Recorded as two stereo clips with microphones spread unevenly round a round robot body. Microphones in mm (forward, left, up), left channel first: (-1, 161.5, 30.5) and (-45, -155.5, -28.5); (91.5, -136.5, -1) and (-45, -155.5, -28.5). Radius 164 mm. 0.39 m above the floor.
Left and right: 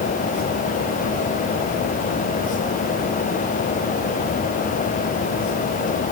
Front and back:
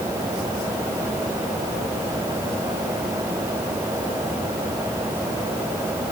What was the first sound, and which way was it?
Only background noise.